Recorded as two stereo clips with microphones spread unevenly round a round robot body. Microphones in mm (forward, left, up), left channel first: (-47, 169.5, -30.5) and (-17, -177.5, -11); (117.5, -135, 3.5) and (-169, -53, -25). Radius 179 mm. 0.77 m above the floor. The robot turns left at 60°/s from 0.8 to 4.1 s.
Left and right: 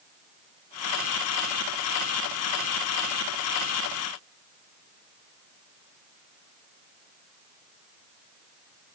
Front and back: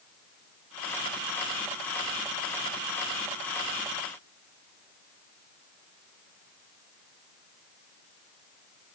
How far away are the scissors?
I don't hear scissors.